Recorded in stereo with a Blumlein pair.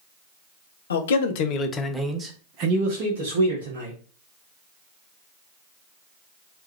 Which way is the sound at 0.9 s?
70° left.